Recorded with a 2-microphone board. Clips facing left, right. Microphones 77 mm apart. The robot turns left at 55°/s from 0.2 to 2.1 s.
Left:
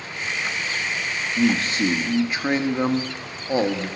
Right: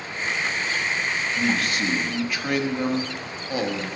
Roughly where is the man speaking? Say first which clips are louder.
Left 5 dB; left.